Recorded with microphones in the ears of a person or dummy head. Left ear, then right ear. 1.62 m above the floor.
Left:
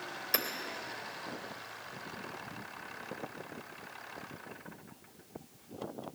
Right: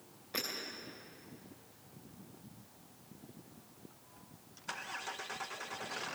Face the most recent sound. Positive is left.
turn(degrees=65)  # may be behind; listen again after turning